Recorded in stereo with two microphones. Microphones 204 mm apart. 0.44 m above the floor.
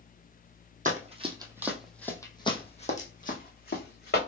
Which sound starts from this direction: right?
Running footsteps, at 0.8 s.